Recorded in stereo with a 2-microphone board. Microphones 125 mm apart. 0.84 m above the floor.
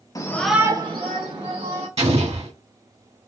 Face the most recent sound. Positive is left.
turn(degrees=-55)  # may be behind; listen again after turning